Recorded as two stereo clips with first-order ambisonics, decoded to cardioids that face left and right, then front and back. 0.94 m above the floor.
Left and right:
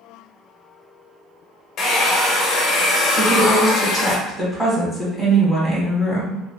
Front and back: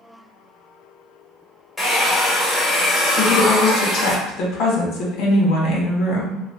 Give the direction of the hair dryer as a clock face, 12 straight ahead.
9 o'clock.